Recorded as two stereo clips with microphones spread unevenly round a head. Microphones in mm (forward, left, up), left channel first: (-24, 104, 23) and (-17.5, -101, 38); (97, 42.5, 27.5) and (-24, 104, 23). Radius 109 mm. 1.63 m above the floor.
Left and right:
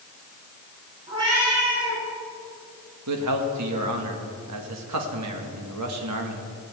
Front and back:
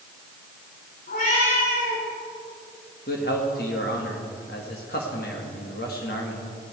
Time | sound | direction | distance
1.1 | a cat meowing | 20° right | 7 m
3.1 | a man speaking | 75° right | 2.0 m